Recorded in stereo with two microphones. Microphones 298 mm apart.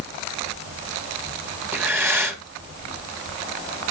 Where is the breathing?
5° right (ahead or behind), 1.7 m.